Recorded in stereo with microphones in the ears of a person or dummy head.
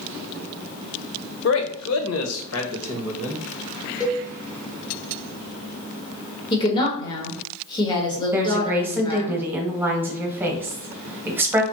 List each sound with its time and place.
1.4 s a man speaking: 55° left (ahead or behind), 0.6 m; by 3.9 s 70° left (ahead or behind), 1.8 m
4.0 s a cowbell: 25° left (ahead or behind), 1.0 m
6.5 s a woman speaking: 25° left (ahead or behind), 1.2 m
8.3 s a woman speaking: 10° right (ahead or behind), 0.8 m